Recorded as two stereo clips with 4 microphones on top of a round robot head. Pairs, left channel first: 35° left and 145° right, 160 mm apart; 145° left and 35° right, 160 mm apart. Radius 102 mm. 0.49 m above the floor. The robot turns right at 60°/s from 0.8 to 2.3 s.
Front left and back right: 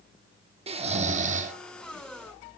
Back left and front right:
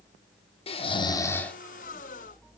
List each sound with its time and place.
0.7 s snoring: 175° right, 1.2 m; by 1.5 s 135° right, 1.2 m